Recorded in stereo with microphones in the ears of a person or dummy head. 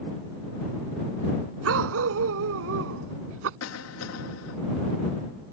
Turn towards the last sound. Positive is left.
turn(degrees=85)